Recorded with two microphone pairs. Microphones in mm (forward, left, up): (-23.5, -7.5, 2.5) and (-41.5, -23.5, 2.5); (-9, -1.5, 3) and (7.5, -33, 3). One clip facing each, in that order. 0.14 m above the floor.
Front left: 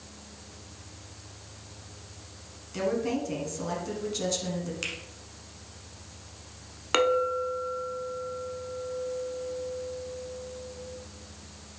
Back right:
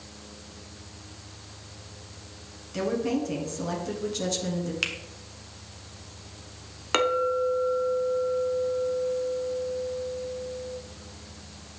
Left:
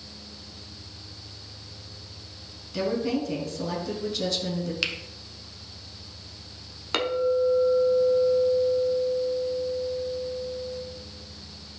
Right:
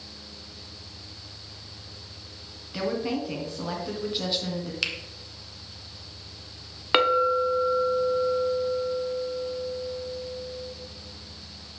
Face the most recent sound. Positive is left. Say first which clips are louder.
# back right 1 dB, right 3 dB
turn(degrees=-60)